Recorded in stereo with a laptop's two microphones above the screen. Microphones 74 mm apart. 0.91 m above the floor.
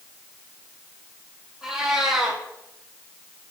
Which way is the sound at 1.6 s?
10° right (ahead or behind).